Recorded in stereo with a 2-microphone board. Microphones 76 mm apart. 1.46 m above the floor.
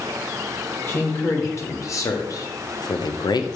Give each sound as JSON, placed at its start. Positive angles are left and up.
{"t": 0.9, "sound": "a man speaking", "side_deg": 35, "distance_m": 1.7}